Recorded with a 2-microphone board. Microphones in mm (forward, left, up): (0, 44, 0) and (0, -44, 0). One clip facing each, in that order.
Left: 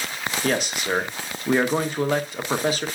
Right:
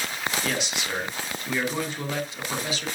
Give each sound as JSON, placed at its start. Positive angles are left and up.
{"t": 0.4, "sound": "a man speaking", "side_deg": 45, "distance_m": 1.1}